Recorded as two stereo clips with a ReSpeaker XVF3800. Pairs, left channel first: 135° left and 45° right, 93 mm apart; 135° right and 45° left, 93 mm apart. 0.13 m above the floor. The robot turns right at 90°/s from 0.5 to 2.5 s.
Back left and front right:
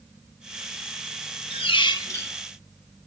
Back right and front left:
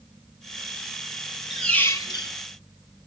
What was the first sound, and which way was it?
A squeak, 130° left.